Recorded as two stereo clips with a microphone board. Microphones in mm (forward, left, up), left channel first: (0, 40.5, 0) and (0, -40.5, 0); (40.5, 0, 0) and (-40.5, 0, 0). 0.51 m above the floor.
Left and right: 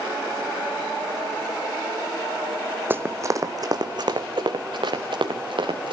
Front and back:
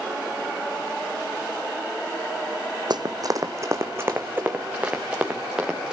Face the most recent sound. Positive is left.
turn(degrees=-100)